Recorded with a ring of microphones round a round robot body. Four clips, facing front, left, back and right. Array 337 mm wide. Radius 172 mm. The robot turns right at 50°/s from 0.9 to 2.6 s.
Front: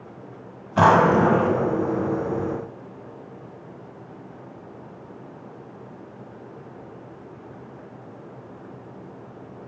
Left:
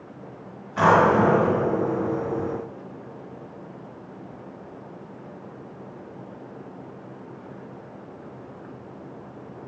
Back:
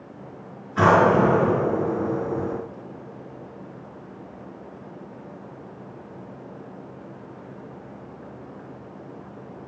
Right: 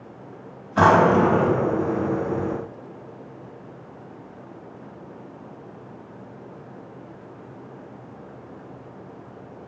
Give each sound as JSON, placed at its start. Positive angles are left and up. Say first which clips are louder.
{"t": 0.8, "sound": "a drawer", "louder": "right 2 dB, front 1 dB", "azimuth_deg": -35, "distance_m": 1.7}